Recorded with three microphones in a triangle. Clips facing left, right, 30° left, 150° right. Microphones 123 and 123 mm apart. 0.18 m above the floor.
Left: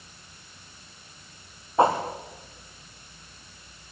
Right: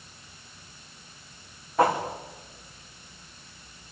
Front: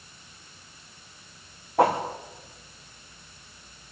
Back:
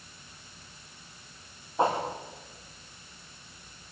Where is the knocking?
No knocking in this recording.